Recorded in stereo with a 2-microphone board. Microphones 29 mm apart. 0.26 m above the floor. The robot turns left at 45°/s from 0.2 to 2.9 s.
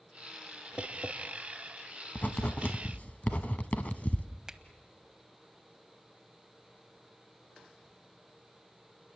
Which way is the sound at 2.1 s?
60° left (ahead or behind).